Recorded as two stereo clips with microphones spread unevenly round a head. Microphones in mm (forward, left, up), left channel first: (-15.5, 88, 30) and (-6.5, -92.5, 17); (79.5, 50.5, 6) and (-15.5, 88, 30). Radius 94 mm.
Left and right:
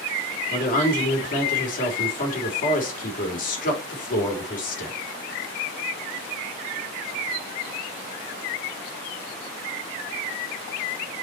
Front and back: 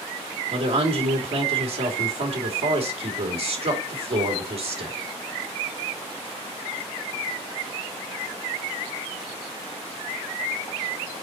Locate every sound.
0.5 s a woman speaking: 135° left, 3 m